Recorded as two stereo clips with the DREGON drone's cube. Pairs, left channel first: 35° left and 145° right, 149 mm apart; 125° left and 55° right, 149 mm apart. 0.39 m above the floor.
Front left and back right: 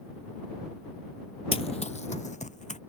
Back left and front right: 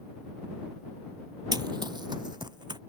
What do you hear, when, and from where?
1.5 s running footsteps: 5° right; by 2.8 s 5° left